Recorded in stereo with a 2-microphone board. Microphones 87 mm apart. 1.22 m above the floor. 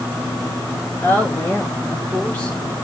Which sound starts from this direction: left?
A woman speaking, at 1.0 s.